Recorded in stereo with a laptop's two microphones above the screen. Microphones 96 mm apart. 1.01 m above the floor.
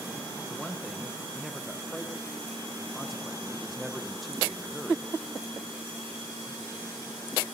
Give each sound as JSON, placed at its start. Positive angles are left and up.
{"t": 0.5, "sound": "a man speaking", "side_deg": 0, "distance_m": 0.7}